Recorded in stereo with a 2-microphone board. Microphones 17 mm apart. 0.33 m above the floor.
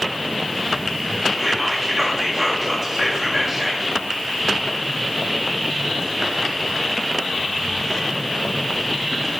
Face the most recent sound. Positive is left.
turn(degrees=-35)  # may be behind; listen again after turning